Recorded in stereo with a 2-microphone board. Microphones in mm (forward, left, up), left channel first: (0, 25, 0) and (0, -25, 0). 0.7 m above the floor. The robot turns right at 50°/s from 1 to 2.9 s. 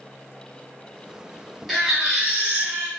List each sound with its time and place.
1.7 s a baby crying: 175° left, 1.2 m; by 2.9 s 125° right, 1.2 m